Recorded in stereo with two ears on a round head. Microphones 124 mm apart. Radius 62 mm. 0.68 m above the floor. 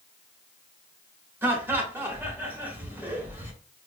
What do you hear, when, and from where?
1.4 s laughter: 15° right (ahead or behind), 1.0 m